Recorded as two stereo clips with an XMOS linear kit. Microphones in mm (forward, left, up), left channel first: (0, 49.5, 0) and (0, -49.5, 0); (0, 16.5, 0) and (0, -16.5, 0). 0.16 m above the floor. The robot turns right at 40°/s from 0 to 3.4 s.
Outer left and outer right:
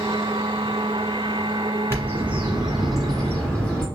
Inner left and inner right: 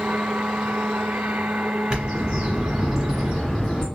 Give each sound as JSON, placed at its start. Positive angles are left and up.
{"t": 1.9, "sound": "a bird", "azimuth_deg": -45, "distance_m": 1.7}